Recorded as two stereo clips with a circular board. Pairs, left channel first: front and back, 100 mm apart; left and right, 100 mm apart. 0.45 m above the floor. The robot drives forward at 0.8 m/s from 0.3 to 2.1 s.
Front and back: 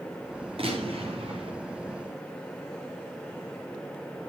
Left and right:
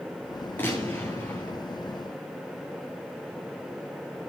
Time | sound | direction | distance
0.6 | a gunshot | 160° left | 9 m